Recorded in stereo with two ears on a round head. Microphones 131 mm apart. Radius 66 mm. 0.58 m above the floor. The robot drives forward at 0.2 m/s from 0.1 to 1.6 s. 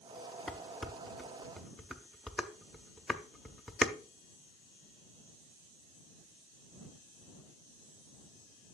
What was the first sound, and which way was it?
Dishes clattering, centre (ahead or behind).